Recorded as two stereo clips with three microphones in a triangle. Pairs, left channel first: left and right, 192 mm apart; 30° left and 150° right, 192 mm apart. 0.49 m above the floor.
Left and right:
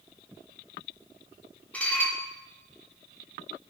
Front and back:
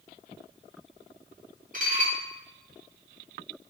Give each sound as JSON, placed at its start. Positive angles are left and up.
{"t": 1.7, "sound": "dishes clattering", "azimuth_deg": 170, "distance_m": 3.0}